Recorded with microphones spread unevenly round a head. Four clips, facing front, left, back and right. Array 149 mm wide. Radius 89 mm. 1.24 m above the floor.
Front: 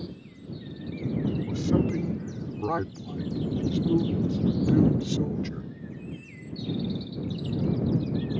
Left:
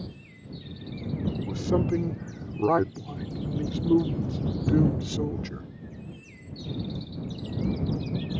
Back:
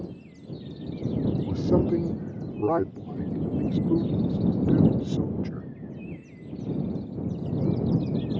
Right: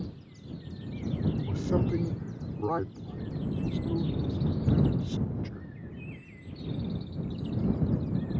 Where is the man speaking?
155° left; by 5.7 s 85° left.